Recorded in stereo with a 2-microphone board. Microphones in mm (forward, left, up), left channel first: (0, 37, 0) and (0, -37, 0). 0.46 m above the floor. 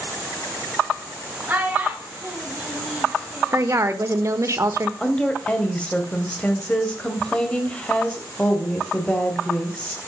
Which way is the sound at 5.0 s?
15° left (ahead or behind).